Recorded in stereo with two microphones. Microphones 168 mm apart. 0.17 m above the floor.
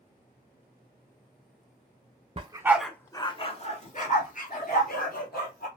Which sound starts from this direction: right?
A dog barking, at 2.4 s.